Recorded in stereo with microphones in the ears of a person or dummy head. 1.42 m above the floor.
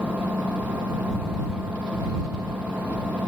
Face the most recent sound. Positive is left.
turn(degrees=-5)  # may be behind; listen again after turning